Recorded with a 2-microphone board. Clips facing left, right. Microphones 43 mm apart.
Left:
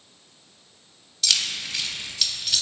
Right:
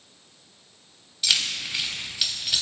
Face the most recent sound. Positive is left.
turn(degrees=-15)  # may be behind; listen again after turning